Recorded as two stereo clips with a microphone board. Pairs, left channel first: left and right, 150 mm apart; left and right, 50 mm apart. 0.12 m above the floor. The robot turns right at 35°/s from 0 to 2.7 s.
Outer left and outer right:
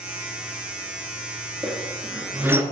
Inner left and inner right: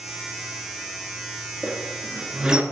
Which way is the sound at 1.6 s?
5° left (ahead or behind).